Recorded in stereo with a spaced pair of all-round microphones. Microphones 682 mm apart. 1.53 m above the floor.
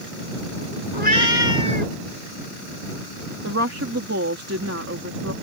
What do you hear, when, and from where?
0.9 s a cat meowing: 80° left
3.4 s a woman speaking: 20° right (ahead or behind)